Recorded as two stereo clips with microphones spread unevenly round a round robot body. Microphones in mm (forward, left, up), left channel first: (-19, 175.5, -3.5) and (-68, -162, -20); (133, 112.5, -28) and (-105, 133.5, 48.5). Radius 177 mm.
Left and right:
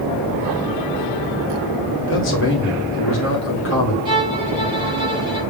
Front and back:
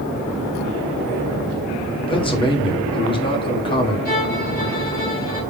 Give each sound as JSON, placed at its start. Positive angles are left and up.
{"t": 2.0, "sound": "a man speaking", "azimuth_deg": 35, "distance_m": 1.3}
{"t": 4.0, "sound": "a violin", "azimuth_deg": -25, "distance_m": 1.7}